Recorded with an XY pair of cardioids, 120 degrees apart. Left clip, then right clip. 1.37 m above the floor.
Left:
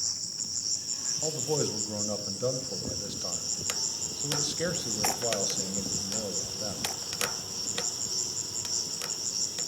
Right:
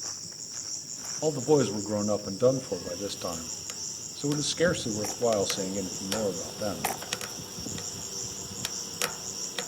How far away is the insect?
About 4.5 m.